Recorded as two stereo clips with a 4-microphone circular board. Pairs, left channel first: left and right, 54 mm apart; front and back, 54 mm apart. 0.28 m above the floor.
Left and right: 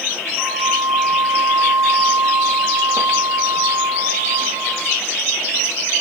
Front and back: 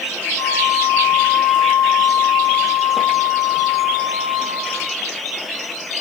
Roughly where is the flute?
Ahead.